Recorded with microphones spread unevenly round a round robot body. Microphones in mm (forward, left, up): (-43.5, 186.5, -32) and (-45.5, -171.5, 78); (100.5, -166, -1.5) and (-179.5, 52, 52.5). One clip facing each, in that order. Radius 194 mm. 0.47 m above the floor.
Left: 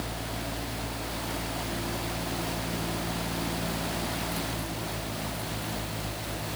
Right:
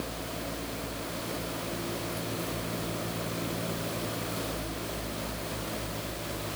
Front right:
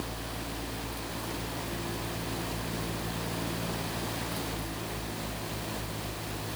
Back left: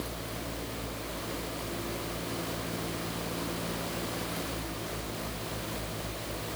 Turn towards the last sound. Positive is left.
No sound to turn to.